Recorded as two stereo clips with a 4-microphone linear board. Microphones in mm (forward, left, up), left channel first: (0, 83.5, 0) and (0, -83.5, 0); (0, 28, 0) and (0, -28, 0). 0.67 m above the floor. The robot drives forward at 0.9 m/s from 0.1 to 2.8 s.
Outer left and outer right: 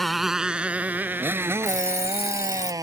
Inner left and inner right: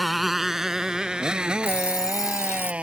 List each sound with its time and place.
0.0 s a motorcycle: centre (ahead or behind); by 2.8 s 20° right (ahead or behind)
1.6 s an alarm clock: 45° left (ahead or behind); by 2.7 s 40° left (ahead or behind)